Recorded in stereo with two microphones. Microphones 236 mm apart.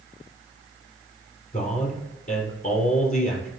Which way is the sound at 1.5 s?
35° left (ahead or behind).